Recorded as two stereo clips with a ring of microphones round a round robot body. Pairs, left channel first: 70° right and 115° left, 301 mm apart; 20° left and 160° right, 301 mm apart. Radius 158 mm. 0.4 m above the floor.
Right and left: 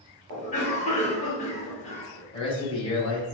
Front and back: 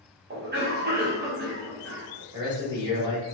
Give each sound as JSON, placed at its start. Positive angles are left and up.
{"t": 0.3, "sound": "a cough", "azimuth_deg": -120, "distance_m": 0.9}
{"t": 2.3, "sound": "a man speaking", "azimuth_deg": -105, "distance_m": 1.0}